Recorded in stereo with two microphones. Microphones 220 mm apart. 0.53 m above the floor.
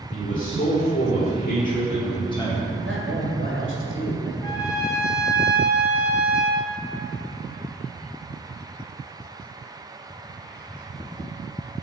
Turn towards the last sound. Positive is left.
turn(degrees=15)  # may be behind; listen again after turning